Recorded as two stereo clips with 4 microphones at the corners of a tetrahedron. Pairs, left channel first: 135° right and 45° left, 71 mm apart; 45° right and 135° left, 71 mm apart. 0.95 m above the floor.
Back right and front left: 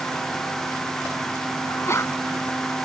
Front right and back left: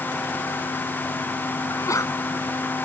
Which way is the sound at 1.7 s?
85° right.